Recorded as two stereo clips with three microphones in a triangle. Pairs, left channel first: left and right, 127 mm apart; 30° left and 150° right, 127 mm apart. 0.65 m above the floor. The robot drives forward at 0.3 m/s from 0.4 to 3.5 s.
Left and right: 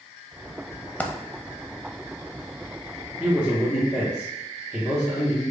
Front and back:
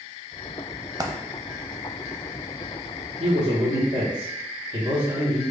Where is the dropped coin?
165° left, 0.5 m.